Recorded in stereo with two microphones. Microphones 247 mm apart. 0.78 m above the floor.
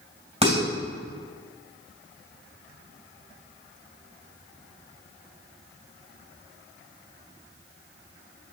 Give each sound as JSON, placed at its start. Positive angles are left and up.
{"t": 0.4, "sound": "dishes clattering", "side_deg": -25, "distance_m": 2.5}